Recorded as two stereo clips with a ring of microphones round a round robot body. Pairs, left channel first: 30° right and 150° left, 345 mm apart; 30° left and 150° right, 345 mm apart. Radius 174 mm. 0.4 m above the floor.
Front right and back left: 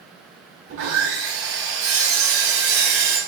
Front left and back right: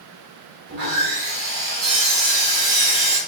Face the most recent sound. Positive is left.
turn(degrees=165)